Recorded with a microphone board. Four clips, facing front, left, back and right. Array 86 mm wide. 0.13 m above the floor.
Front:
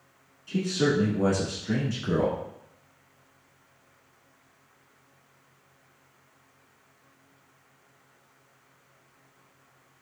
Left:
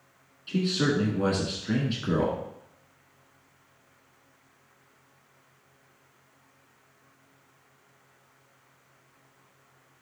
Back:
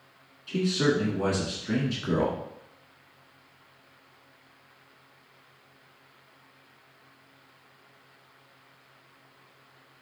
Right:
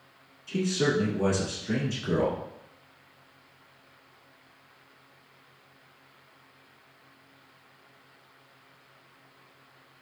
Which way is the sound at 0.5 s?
115° left.